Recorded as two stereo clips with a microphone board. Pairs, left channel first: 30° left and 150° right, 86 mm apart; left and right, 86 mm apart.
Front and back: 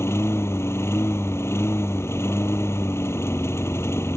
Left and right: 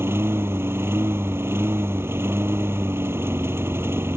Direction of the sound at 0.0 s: 30° right.